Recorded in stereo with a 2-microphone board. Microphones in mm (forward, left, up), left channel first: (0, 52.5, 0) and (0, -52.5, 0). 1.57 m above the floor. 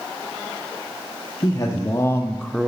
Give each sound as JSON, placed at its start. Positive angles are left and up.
{"t": 1.4, "sound": "a man speaking", "side_deg": 40, "distance_m": 0.8}